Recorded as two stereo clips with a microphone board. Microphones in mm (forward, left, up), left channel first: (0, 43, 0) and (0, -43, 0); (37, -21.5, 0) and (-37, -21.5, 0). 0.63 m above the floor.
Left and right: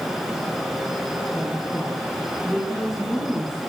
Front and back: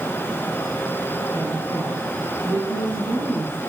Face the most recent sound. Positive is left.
turn(degrees=175)